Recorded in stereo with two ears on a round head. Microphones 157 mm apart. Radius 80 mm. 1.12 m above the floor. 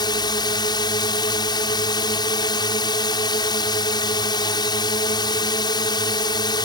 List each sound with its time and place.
0.0 s a drone: 20° left (ahead or behind)